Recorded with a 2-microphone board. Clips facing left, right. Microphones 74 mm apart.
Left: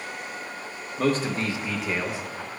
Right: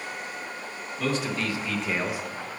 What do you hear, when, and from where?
1.0 s a man speaking: 45° left (ahead or behind), 1.2 m; by 2.2 s 20° right (ahead or behind), 0.8 m